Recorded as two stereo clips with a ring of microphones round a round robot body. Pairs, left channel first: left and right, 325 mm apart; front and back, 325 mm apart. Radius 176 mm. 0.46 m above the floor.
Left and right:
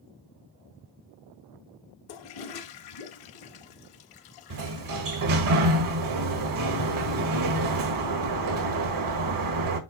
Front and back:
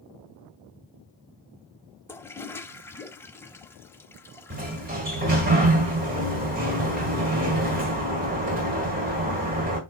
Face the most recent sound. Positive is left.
turn(degrees=-115)